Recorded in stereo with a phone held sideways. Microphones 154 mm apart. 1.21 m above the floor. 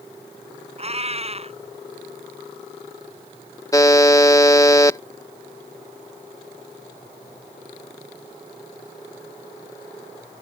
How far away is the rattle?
I don't hear a rattle.